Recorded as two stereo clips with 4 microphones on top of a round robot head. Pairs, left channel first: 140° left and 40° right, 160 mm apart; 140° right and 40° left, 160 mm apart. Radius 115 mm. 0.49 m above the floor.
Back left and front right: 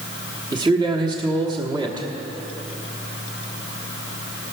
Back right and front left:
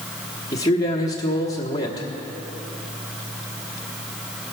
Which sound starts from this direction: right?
A man speaking, at 0.5 s.